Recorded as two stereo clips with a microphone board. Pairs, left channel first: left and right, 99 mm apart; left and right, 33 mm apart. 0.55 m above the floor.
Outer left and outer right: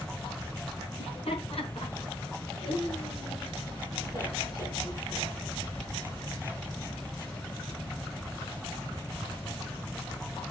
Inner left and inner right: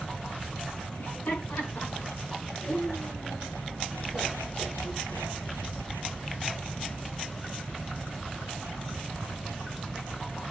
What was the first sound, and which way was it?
Laughter, 65° left (ahead or behind).